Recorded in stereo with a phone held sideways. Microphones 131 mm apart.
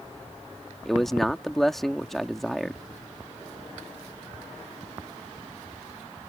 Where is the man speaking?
Centre (ahead or behind).